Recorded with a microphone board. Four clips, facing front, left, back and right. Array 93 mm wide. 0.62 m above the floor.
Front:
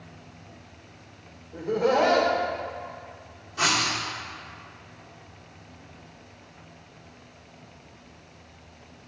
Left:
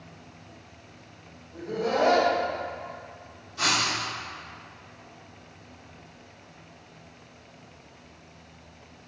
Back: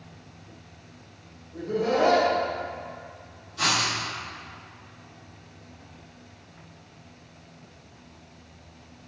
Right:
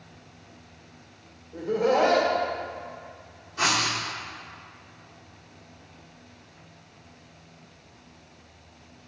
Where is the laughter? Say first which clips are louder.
Right 4 dB, front 2 dB; 35° right, 1.9 m.